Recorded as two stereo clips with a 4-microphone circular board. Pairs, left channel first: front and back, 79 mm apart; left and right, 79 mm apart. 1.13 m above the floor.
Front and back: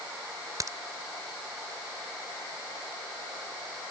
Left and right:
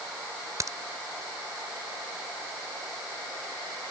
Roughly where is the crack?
Behind right.